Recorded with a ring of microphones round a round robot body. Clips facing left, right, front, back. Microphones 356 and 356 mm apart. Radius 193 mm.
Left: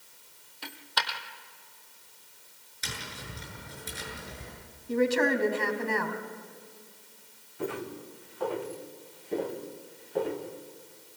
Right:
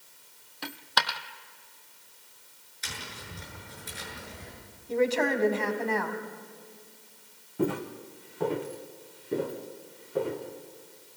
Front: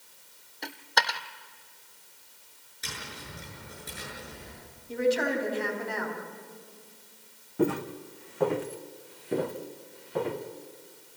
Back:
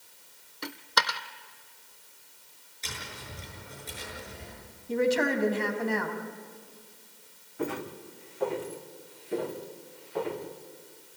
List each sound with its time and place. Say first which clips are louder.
0.6 s a dropped coin: right 4 dB, even; 100° right, 1.1 m
2.8 s tapping: left 2 dB, even; 75° left, 8 m
4.9 s a woman speaking: left 1 dB, back 1 dB; 155° left, 3.5 m
7.6 s footsteps: right 6 dB, front 7 dB; 45° right, 2 m; by 10.4 s 5° right, 3.5 m